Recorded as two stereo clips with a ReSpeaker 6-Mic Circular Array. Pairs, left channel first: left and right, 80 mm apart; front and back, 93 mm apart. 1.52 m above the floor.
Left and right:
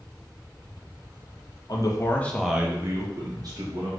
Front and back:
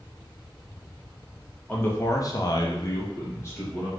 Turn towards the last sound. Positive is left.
turn(degrees=-60)